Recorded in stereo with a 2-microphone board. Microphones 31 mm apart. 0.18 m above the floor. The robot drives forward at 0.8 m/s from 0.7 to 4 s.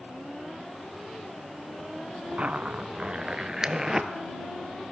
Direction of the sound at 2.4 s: 50° right (ahead or behind).